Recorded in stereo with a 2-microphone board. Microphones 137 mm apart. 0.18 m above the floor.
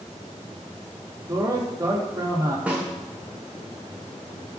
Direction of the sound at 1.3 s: 30° right (ahead or behind).